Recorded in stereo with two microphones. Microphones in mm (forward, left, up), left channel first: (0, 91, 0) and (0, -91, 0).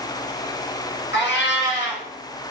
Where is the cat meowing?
80° left, 2.5 m.